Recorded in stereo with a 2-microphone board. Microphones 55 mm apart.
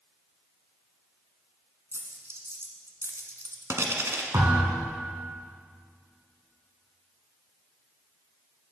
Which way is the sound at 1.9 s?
60° right (ahead or behind).